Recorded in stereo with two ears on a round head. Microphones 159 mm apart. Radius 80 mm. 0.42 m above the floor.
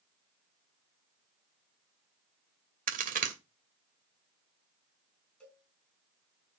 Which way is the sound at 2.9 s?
50° right (ahead or behind).